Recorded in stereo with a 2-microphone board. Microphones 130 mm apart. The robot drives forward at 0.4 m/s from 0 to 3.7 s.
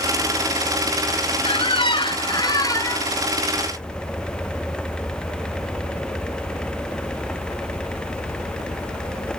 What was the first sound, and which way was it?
A squeak, 45° left (ahead or behind).